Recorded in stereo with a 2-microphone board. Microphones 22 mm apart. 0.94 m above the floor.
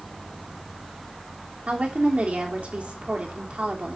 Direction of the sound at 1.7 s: 75° right (ahead or behind).